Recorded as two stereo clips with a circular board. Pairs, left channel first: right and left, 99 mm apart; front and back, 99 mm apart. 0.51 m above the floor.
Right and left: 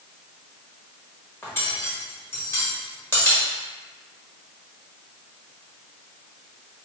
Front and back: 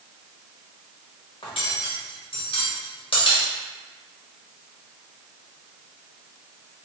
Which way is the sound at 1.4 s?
25° right.